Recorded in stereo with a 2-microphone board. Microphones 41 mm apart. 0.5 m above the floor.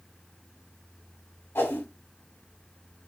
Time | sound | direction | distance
1.6 | a whoosh | 85° left | 1.2 m